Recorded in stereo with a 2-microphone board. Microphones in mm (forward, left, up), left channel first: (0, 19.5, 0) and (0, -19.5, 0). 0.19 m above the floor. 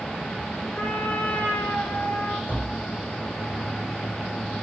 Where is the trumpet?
50° left (ahead or behind), 5.5 m.